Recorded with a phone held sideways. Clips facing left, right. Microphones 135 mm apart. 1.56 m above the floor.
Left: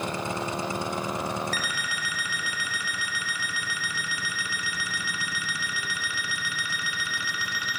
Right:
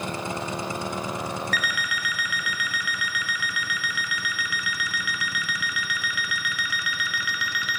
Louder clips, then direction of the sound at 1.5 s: Right 3 dB; 30° left (ahead or behind).